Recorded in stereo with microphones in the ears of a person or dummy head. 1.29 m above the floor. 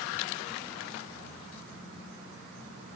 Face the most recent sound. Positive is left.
No sound to turn to.